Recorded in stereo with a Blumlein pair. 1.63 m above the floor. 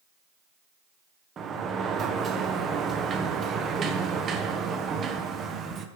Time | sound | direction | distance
1.4 | a sliding door | 25° right | 0.8 m